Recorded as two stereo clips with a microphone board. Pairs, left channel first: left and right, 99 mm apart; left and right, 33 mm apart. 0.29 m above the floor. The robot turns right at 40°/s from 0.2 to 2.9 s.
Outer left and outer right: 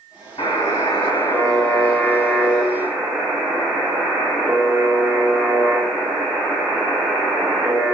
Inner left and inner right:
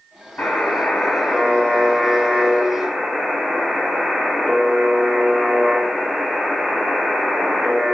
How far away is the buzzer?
About 0.8 m.